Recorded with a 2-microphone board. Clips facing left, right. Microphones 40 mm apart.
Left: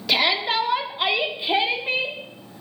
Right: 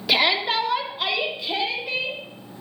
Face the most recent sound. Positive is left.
turn(degrees=40)  # may be behind; listen again after turning